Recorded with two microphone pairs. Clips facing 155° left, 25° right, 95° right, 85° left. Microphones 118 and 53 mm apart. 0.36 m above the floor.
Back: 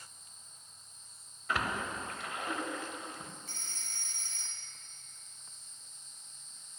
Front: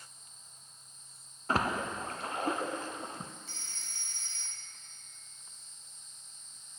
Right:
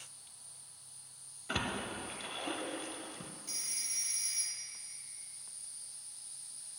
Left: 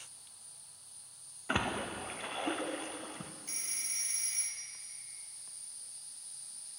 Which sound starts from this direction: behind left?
A phone ringing, at 3.5 s.